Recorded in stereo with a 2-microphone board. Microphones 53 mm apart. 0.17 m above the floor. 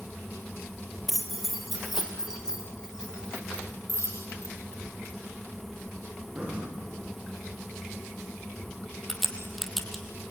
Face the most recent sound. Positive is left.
turn(degrees=0)  # may be behind; listen again after turning